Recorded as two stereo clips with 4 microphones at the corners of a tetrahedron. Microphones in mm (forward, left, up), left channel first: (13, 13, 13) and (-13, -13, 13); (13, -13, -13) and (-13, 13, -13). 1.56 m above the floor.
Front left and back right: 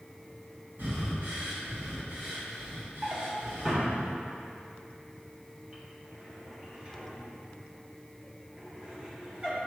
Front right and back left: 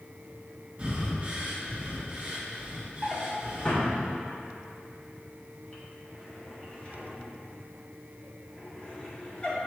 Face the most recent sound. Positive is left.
turn(degrees=-90)